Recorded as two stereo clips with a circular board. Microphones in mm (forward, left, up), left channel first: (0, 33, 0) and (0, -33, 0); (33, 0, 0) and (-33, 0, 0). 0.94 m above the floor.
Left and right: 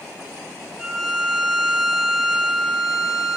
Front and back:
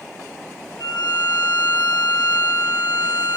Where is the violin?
10° right, 7 m.